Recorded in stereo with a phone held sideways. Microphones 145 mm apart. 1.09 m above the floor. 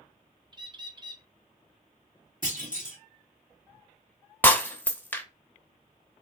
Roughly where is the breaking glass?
Centre.